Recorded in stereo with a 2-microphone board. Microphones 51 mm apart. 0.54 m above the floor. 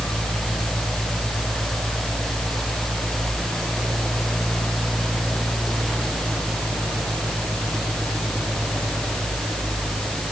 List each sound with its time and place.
Only background noise.